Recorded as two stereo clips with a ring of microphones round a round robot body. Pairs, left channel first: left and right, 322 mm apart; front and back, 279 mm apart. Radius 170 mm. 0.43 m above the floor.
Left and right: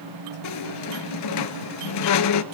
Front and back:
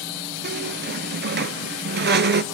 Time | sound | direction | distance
0.4 | a squeak | 130° left | 0.8 m